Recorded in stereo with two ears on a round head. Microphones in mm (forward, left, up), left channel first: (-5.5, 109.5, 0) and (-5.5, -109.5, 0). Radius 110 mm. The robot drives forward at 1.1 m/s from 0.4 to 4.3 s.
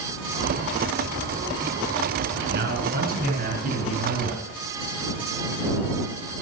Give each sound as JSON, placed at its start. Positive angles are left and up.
{"t": 2.4, "sound": "a man speaking", "side_deg": -45, "distance_m": 5.0}